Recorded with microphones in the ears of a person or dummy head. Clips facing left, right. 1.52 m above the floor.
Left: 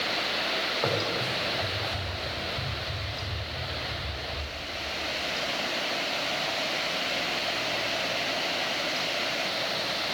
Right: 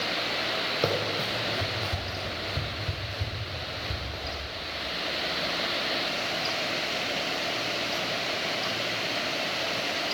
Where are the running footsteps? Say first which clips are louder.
Right 1 dB; 35° right (ahead or behind), 3 m; by 4.4 s 65° right (ahead or behind), 4 m.